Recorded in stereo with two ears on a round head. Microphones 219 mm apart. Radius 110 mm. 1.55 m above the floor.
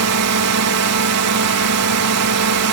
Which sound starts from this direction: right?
A drone, at 0.0 s.